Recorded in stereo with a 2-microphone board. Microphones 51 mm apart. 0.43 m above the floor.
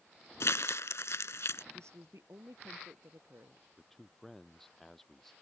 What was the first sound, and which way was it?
Crumpling, 75° left (ahead or behind).